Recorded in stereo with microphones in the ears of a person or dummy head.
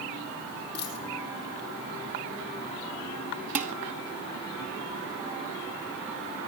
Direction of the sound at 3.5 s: 40° right (ahead or behind).